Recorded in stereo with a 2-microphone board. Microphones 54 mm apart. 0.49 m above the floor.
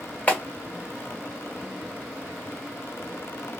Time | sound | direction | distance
0.3 | a clap | 30° left (ahead or behind) | 1.2 m